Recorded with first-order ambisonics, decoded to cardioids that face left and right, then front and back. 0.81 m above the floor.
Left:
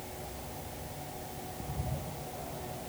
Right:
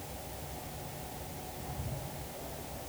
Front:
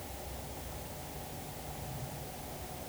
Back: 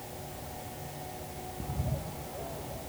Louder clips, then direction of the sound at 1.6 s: Left 2 dB, back 5 dB; 165° left.